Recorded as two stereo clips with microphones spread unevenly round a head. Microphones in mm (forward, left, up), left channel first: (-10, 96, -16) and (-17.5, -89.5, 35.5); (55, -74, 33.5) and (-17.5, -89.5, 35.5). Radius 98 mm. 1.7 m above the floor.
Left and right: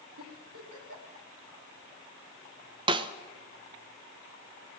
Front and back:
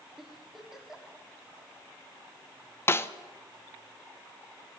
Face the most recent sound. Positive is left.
turn(degrees=-40)